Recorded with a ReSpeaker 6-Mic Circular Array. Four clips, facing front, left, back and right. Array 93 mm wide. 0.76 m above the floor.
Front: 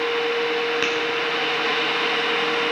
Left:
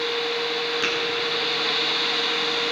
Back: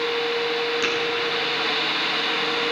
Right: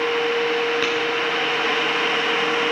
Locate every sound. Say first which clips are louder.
0.8 s tapping: right 4 dB, front 1 dB; 35° right, 5 m